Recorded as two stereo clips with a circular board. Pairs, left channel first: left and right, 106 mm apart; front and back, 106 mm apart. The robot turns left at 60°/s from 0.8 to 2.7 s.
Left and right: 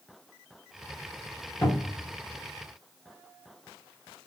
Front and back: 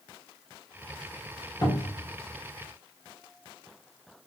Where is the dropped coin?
No dropped coin in this recording.